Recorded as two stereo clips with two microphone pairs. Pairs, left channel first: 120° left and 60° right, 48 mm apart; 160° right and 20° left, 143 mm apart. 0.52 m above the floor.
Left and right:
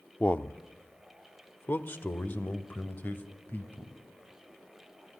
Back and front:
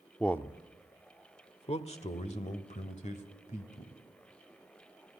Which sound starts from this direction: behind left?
A man speaking, at 0.2 s.